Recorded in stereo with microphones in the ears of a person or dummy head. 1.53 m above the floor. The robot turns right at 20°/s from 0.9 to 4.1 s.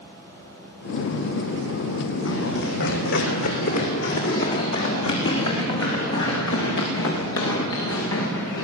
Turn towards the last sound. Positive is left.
turn(degrees=80)